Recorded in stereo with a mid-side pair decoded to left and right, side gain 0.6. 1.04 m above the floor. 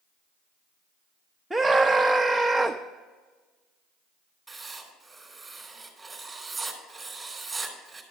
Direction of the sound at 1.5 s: 5° right.